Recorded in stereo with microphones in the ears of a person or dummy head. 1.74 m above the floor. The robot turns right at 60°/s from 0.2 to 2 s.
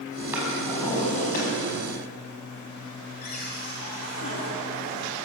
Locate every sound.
0.3 s a drawer: 15° right, 4.5 m; by 1.5 s 55° left, 4.5 m
3.2 s a cupboard door: 55° left (ahead or behind), 2 m